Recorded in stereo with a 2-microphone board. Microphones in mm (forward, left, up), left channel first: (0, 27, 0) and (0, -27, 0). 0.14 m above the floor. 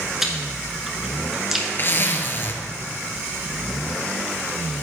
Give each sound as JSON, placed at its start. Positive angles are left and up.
{"t": 0.2, "sound": "chewing", "side_deg": -5, "distance_m": 1.5}
{"t": 1.8, "sound": "a zipper", "side_deg": 40, "distance_m": 0.8}